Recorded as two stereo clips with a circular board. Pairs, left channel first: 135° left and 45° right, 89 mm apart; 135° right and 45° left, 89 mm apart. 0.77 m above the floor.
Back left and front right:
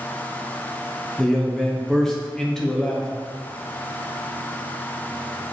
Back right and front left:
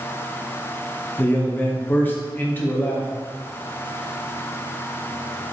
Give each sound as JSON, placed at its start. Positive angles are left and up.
{"t": 1.2, "sound": "a man speaking", "azimuth_deg": -150, "distance_m": 0.6}